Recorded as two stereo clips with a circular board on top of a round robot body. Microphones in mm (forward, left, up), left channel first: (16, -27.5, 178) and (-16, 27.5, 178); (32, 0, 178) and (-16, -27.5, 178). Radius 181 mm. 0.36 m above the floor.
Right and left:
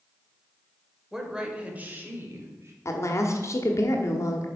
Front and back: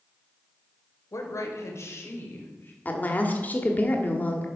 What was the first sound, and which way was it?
A woman speaking, 40° left.